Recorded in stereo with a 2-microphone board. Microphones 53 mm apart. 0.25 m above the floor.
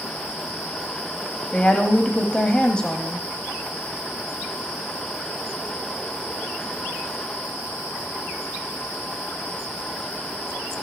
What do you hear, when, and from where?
1.5 s a woman speaking: 20° left (ahead or behind), 1.0 m